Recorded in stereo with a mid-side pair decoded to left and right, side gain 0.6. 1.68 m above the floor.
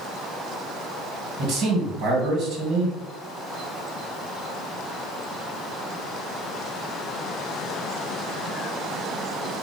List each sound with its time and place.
1.4 s a man speaking: 60° right, 1.6 m